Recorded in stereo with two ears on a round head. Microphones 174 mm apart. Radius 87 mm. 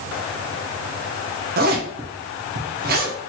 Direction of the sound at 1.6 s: 50° right (ahead or behind).